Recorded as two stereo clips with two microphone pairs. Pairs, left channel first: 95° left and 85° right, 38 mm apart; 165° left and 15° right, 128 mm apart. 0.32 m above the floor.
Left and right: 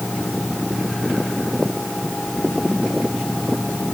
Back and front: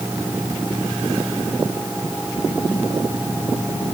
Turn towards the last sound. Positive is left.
No sound to turn to.